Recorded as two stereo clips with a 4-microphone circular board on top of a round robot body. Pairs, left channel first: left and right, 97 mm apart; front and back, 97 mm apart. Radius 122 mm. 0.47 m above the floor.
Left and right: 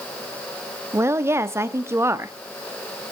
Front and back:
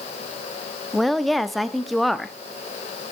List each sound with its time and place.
0.9 s a woman speaking: 90° right, 1.1 m